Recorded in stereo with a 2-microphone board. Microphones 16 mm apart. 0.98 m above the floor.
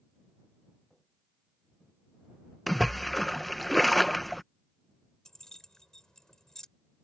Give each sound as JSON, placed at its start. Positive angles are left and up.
{"t": 0.9, "sound": "footsteps", "side_deg": 20}
{"t": 2.7, "sound": "a splash", "side_deg": 10}
{"t": 5.2, "sound": "keys jangling", "side_deg": 35}